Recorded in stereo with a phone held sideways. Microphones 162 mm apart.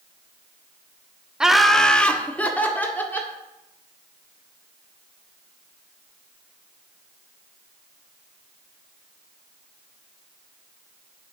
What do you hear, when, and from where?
1.4 s laughter: 5° right (ahead or behind), 0.5 m; by 3.3 s 10° left (ahead or behind), 2 m